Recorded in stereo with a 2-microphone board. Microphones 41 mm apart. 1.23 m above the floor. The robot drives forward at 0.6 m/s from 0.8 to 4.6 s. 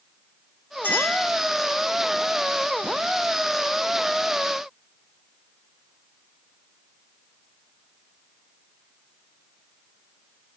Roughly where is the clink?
Left.